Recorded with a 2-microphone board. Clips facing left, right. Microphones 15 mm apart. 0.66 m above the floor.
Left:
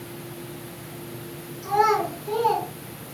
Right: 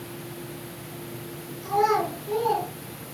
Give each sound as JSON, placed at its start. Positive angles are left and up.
{"t": 1.6, "sound": "a child speaking", "side_deg": 60, "distance_m": 4.5}